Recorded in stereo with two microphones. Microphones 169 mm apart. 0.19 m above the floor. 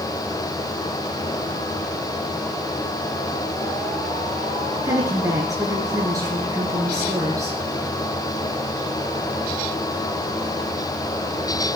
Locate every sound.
4.8 s a woman speaking: 20° right (ahead or behind), 3 m